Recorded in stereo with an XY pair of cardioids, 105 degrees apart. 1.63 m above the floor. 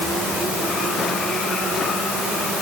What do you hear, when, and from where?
Only background noise.